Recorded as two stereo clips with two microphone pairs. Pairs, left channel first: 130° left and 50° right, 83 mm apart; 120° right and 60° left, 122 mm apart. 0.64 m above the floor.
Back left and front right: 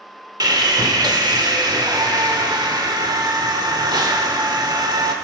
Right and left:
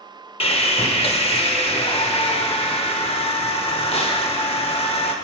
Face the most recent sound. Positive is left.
turn(degrees=-80)